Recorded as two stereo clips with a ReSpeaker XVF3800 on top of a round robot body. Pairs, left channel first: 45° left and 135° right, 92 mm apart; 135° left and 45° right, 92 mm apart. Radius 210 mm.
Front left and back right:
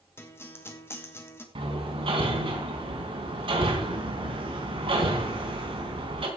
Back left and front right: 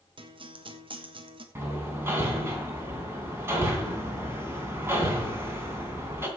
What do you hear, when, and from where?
0.2 s a guitar: 20° right, 2.5 m
1.6 s hammering: 110° right, 3.5 m